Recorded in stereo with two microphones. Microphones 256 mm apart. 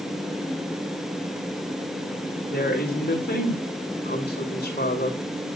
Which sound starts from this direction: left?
A woman speaking, at 2.5 s.